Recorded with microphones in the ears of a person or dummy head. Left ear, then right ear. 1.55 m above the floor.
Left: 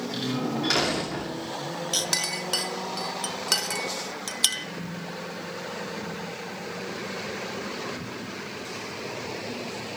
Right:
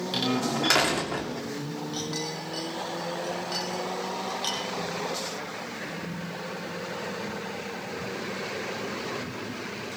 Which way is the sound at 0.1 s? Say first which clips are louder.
Right 4 dB; 30° right (ahead or behind).